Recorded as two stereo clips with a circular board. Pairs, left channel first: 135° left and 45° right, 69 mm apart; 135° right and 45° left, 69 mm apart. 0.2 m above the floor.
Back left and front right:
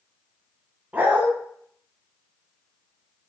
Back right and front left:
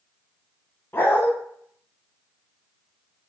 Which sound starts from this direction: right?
A dog barking, at 0.9 s.